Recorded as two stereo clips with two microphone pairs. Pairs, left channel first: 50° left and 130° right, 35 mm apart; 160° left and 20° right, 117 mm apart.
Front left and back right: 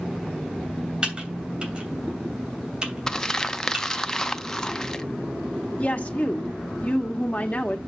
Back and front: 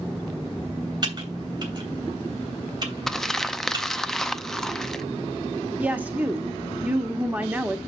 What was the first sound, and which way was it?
Typing on a keyboard, 70° right.